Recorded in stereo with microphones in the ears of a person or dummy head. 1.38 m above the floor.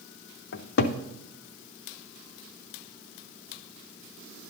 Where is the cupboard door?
60° left (ahead or behind), 0.5 m.